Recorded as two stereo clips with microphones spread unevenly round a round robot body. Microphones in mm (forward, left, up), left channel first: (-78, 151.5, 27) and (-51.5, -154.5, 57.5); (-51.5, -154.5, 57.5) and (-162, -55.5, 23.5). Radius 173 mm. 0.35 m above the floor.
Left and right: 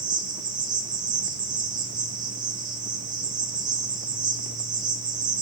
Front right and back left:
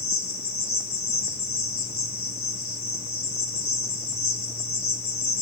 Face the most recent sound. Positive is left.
turn(degrees=-5)